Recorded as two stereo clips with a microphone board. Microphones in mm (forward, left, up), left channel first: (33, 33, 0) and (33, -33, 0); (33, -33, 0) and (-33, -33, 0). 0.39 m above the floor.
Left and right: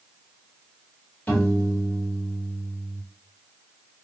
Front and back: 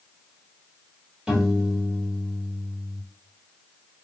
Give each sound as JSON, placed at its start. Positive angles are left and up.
{"t": 1.3, "sound": "a piano", "azimuth_deg": 125, "distance_m": 1.2}